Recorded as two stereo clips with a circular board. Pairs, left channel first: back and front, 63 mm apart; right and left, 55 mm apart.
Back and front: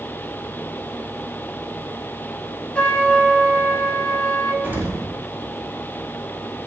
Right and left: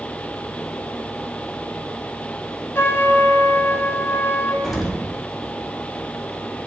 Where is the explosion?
5° left, 0.8 m.